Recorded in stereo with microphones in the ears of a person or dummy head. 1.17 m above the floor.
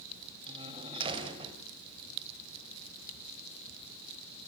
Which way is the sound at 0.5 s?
30° right (ahead or behind).